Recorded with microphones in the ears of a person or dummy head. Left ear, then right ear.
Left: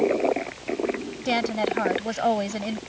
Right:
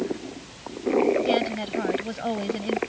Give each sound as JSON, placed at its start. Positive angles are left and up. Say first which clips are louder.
{"t": 1.2, "sound": "a woman speaking", "louder": "even", "side_deg": 30}